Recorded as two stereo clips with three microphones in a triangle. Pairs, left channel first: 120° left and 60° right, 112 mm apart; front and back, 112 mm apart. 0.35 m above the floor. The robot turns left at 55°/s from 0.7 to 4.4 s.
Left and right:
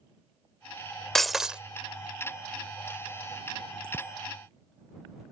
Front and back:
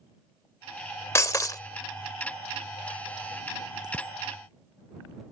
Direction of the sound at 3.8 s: 130° right.